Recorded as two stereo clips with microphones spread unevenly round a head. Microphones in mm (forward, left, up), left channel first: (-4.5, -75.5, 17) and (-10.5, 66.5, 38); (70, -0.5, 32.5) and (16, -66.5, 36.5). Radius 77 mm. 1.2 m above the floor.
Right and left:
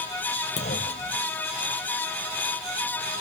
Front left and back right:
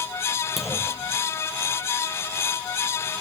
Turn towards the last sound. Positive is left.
turn(degrees=-40)